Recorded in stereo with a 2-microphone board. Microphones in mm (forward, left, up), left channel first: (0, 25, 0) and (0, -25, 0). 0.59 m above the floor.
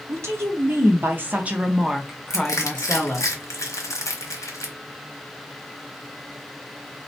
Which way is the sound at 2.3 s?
80° left.